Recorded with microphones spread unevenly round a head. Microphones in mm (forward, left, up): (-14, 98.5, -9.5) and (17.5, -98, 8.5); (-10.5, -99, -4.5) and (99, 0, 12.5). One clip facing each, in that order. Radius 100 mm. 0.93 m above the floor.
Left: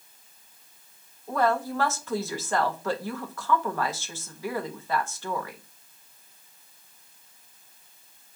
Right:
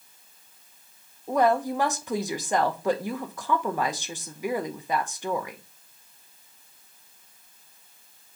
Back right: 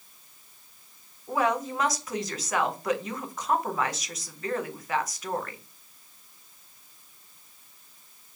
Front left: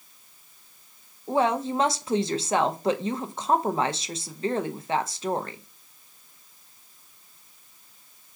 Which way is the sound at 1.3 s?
10° right.